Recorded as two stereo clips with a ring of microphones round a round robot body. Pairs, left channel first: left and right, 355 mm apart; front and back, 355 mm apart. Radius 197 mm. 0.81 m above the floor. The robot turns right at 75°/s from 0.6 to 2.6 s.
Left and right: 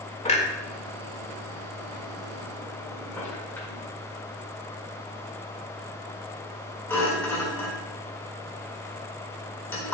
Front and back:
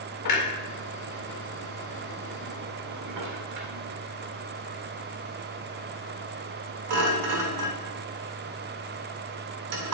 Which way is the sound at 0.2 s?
20° left.